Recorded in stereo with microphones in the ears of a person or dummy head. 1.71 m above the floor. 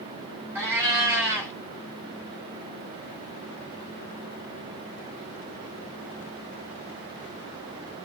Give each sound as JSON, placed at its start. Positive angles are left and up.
{"t": 0.6, "sound": "a cat meowing", "side_deg": -20, "distance_m": 1.7}